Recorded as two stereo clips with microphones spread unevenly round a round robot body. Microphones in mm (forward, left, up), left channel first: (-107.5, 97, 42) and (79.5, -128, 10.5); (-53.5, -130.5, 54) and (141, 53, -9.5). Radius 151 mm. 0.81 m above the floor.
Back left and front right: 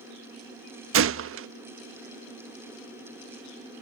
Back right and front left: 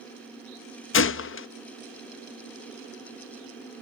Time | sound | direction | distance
0.9 | a gunshot | 85° right | ?